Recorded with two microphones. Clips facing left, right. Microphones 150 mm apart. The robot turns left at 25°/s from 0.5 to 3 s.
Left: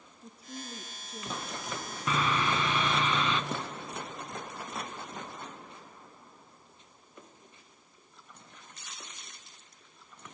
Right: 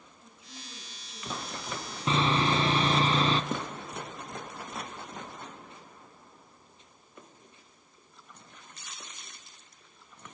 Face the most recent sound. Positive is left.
turn(degrees=-15)  # may be behind; listen again after turning